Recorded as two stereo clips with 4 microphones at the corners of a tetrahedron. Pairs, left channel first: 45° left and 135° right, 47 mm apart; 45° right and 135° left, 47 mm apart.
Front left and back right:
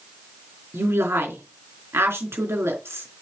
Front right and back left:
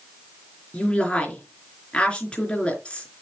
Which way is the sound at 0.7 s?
110° right.